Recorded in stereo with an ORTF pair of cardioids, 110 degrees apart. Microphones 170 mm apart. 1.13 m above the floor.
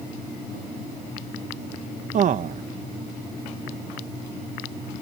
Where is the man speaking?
50° right.